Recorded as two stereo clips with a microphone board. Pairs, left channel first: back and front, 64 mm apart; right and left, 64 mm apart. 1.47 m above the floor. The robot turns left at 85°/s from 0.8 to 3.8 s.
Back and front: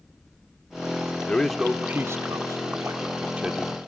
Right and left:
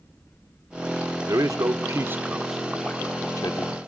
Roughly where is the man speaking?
Behind left.